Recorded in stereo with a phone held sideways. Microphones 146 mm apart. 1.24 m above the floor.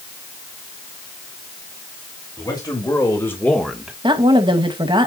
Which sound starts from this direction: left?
A man speaking, at 2.4 s.